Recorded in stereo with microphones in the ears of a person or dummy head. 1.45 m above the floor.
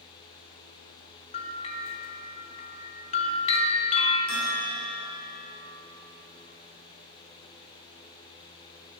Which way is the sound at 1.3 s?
40° left (ahead or behind).